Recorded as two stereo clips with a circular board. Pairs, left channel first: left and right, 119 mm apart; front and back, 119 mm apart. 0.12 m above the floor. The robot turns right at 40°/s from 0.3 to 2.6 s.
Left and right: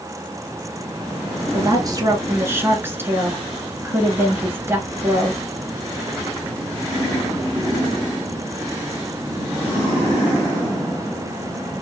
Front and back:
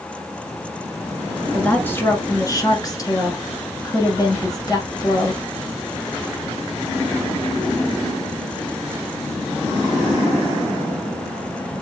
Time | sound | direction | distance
1.5 | a woman speaking | 75° right | 1.4 m